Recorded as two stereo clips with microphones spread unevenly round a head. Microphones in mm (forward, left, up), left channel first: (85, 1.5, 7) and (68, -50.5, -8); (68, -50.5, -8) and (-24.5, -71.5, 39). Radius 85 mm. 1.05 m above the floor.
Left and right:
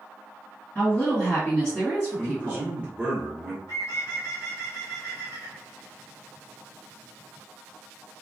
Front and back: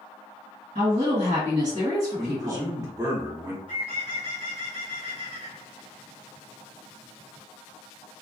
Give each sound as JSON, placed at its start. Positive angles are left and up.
{"t": 0.8, "sound": "a woman speaking", "azimuth_deg": 155, "distance_m": 1.6}
{"t": 2.2, "sound": "a man speaking", "azimuth_deg": -95, "distance_m": 0.8}
{"t": 3.7, "sound": "a bird", "azimuth_deg": 130, "distance_m": 0.6}